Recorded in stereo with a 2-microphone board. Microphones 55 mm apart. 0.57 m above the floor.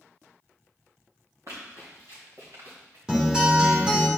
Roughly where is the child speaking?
No child speaking in this recording.